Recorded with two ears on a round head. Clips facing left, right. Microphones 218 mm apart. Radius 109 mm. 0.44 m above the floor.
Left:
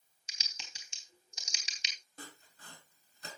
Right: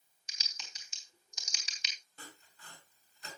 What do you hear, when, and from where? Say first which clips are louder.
0.3 s typing on a keyboard: left 1 dB; 25° left (ahead or behind), 3.5 m
2.2 s sawing: left 3 dB; 35° left (ahead or behind), 4.5 m